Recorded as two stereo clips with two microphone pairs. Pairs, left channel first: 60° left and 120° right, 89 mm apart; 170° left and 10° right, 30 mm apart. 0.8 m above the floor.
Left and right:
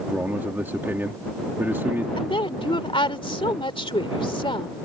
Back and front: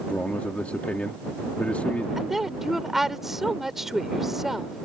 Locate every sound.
0.1 s a man speaking: 175° left
2.2 s a woman speaking: 65° left